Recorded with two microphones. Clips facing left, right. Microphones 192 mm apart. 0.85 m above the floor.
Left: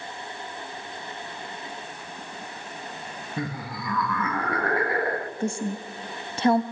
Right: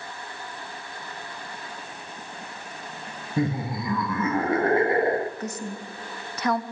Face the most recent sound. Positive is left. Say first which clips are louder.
# left 5 dB
turn(degrees=25)  # may be behind; listen again after turning